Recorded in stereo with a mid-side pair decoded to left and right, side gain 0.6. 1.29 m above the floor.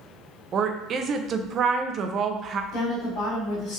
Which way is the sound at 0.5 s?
45° right.